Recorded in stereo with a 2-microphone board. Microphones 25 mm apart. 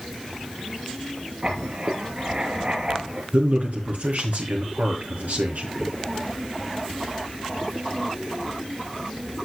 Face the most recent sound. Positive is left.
turn(degrees=-75)  # may be behind; listen again after turning